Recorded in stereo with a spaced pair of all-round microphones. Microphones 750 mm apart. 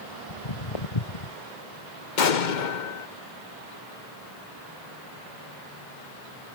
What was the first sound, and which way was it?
Footsteps, 45° left (ahead or behind).